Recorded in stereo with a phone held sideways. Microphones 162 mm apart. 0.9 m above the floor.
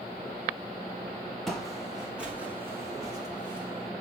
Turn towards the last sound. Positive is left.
turn(degrees=-35)  # may be behind; listen again after turning